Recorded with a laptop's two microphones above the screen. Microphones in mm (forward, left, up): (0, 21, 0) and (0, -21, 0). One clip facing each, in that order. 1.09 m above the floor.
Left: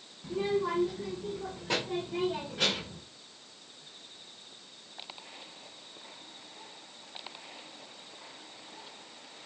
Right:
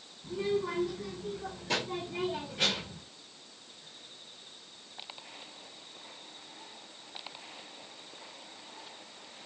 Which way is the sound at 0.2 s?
65° left (ahead or behind).